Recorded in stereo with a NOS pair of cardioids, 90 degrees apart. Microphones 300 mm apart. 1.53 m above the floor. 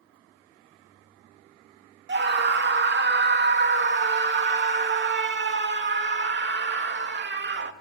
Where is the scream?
35° right, 2.5 m.